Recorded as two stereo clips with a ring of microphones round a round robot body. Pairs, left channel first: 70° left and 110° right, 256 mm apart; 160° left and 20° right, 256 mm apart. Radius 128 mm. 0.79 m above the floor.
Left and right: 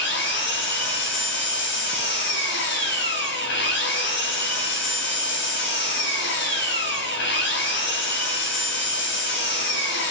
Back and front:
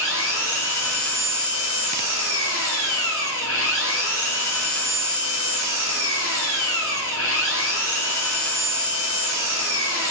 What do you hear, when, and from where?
0.0 s an engine running: 115° left, 6.5 m